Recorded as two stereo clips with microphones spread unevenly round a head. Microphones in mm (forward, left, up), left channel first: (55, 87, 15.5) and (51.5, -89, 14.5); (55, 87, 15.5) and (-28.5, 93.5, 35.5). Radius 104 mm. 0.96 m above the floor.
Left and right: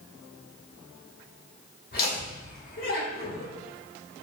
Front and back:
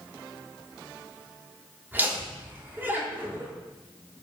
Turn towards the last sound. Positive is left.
turn(degrees=100)